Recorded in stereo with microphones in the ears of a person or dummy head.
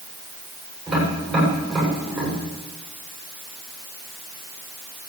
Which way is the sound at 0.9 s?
Centre (ahead or behind).